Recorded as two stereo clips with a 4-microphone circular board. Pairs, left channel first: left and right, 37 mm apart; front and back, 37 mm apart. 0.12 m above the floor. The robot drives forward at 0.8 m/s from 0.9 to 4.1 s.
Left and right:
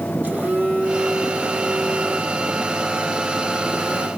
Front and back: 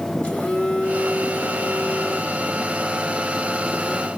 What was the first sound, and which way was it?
A phone buzzing, 45° right.